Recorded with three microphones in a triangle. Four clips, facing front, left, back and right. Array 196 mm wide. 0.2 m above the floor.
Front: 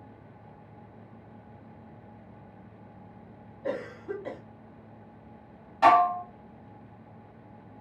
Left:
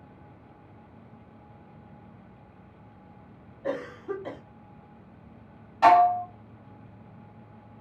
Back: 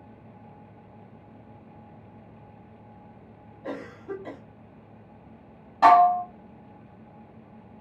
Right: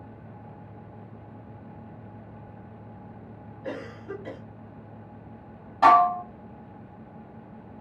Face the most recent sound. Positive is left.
turn(degrees=-150)